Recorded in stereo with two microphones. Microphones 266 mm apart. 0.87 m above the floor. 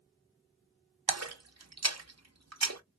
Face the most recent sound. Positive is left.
turn(degrees=-70)  # may be behind; listen again after turning